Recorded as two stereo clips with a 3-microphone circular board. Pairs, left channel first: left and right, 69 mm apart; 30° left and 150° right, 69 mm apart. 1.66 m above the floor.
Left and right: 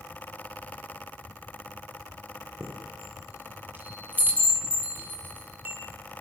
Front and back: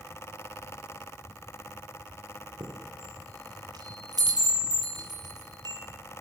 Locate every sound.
2.6 s a chime: 155° right, 7.5 m